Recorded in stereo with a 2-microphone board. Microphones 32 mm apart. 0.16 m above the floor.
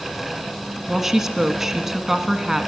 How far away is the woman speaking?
About 1.5 m.